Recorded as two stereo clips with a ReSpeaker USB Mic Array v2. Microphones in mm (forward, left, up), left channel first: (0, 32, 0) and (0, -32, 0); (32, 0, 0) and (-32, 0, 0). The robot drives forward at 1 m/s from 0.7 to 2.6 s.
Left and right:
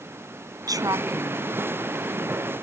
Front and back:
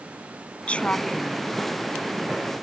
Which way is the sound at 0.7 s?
70° right.